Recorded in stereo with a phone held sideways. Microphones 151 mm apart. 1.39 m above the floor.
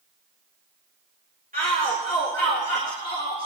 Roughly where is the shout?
Right.